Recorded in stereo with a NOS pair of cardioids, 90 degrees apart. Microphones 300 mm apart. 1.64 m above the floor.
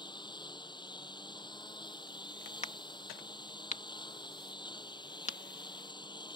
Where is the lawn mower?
15° left.